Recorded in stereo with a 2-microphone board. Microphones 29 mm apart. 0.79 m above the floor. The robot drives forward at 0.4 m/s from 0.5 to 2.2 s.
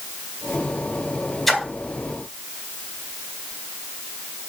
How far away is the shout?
I don't hear a shout.